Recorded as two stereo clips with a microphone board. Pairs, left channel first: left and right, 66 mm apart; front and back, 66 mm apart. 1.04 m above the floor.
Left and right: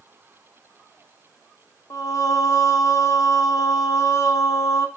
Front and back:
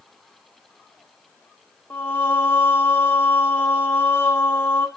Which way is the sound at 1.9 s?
60° left.